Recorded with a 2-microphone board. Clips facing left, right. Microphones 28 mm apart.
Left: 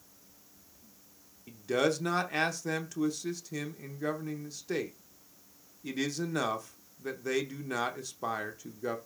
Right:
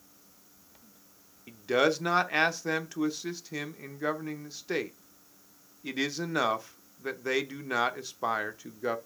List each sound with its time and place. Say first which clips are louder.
1.5 s a man speaking: right 3 dB; 20° right (ahead or behind), 0.8 m